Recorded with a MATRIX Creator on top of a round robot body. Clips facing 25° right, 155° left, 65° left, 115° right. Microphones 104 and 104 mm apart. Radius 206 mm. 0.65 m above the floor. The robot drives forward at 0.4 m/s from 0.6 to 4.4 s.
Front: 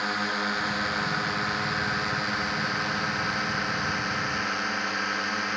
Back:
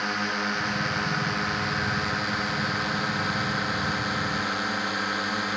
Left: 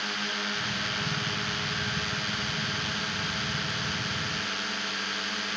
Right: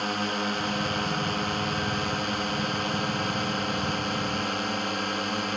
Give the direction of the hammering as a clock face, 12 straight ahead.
No hammering in this recording.